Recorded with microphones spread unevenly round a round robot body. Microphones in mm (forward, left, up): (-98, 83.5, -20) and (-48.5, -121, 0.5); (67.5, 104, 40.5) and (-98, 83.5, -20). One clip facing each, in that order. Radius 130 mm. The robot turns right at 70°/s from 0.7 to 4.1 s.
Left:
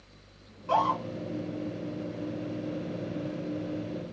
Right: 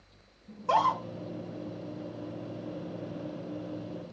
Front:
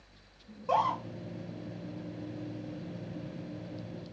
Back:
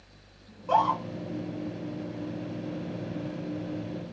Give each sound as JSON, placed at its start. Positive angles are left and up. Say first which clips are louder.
{"t": 0.5, "sound": "a scream", "louder": "left 1 dB, back 4 dB", "azimuth_deg": -95, "distance_m": 1.2}